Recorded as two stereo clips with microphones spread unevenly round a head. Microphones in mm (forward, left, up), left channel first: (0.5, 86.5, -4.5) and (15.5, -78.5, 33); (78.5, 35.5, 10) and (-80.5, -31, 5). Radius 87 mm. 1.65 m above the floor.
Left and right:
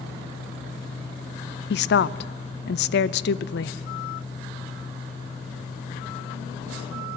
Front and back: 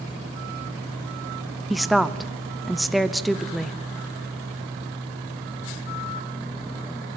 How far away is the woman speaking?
About 0.6 m.